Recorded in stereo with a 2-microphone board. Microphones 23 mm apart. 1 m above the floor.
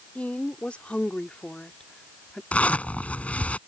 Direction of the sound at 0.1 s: 75° left (ahead or behind).